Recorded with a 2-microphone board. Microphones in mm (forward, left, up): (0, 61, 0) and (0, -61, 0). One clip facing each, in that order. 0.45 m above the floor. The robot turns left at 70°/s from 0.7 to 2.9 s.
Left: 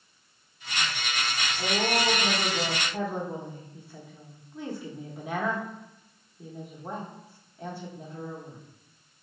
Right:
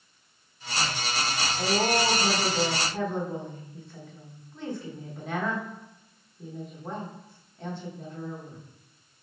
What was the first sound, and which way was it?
A woman speaking, 20° right (ahead or behind).